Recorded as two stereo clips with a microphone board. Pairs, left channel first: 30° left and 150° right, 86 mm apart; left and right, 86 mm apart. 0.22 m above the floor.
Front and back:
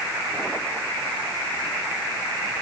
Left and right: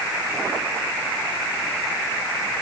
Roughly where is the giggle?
No giggle in this recording.